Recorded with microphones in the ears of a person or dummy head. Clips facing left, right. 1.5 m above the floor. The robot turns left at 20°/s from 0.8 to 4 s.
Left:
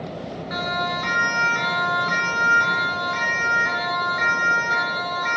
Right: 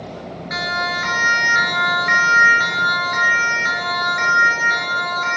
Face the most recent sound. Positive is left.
turn(degrees=-35)  # may be behind; listen again after turning